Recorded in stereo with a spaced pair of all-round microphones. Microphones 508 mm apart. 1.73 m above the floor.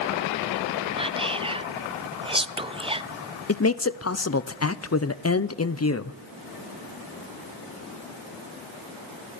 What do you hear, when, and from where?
1.0 s whispering: 10° right (ahead or behind), 0.5 m
3.5 s a man speaking: 30° left (ahead or behind), 0.6 m